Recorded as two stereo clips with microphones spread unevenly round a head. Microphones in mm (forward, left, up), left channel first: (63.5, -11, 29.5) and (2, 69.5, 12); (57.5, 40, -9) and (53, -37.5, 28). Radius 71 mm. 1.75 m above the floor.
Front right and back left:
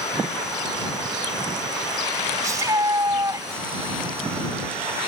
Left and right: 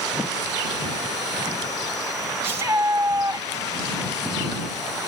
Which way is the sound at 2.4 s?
160° right.